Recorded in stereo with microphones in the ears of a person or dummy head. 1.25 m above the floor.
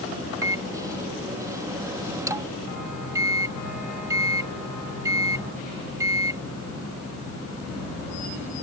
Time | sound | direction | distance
0.4 | a microwave | 20° right (ahead or behind) | ?